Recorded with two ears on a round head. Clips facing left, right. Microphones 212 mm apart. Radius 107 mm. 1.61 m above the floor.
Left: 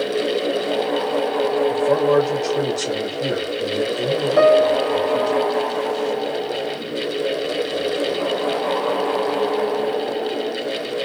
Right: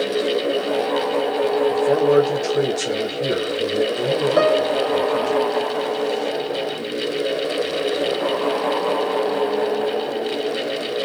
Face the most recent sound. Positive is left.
turn(degrees=-35)  # may be behind; listen again after turning